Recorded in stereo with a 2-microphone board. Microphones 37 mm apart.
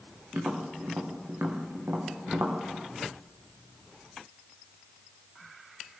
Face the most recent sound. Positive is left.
turn(degrees=-80)